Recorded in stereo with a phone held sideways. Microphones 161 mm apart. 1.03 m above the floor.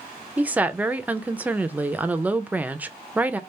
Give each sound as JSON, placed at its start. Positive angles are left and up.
{"t": 0.4, "sound": "a woman speaking", "side_deg": -10, "distance_m": 0.6}